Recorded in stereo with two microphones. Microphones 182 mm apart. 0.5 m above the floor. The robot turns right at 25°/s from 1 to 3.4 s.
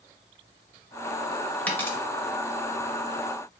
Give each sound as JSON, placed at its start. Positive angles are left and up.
{"t": 1.7, "sound": "a dropped coin", "side_deg": 10, "distance_m": 0.8}